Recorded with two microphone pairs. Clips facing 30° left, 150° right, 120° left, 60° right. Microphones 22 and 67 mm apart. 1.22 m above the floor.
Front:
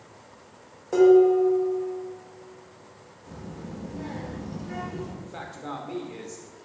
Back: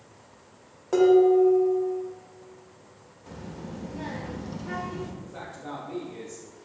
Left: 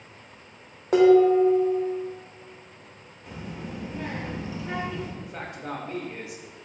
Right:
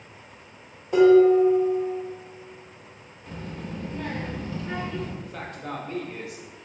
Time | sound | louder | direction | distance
0.9 | dishes clattering | front 1 dB, right 1 dB | 125° left | 0.8 m
3.3 | a child speaking | even, right 1 dB | 170° right | 0.6 m
5.2 | a man speaking | front 2 dB, even | 55° left | 0.9 m